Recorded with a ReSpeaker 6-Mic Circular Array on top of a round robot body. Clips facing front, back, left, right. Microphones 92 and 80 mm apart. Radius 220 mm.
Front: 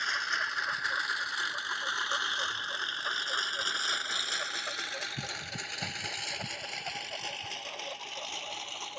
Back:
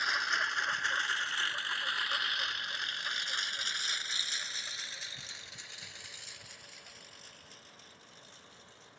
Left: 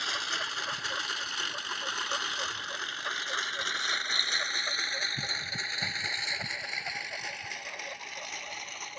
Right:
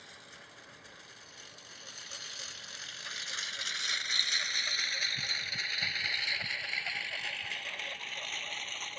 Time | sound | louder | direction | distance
0.0 | a lawn mower | even, left 19 dB | 95° left | ?